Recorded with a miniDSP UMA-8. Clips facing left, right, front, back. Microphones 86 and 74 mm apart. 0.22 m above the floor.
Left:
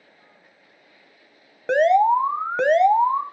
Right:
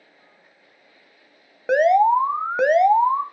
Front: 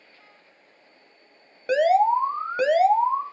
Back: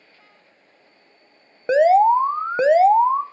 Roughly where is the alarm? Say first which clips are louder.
Right 1 dB, back 5 dB; behind.